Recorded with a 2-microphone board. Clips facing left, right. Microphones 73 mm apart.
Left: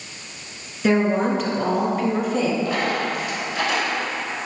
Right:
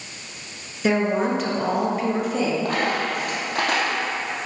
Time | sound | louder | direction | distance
0.8 | a woman speaking | left 2 dB | centre (ahead or behind) | 1.9 m
2.6 | a dropped coin | even | 50° right (ahead or behind) | 2.5 m